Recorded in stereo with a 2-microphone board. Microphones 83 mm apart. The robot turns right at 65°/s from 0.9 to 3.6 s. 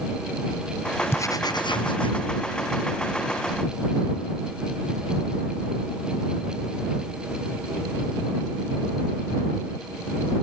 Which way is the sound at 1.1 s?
30° left.